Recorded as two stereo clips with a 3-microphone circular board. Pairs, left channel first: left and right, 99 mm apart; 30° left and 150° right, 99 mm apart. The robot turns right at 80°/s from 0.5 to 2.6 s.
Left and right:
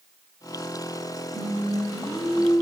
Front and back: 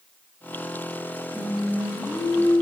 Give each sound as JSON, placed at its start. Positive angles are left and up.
{"t": 1.3, "sound": "singing", "azimuth_deg": -65, "distance_m": 4.5}